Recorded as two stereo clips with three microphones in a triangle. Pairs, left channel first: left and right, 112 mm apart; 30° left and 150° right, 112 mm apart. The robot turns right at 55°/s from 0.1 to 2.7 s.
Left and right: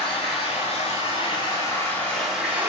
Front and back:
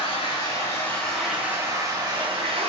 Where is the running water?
60° left, 1.7 m; by 2.7 s 155° right, 1.7 m.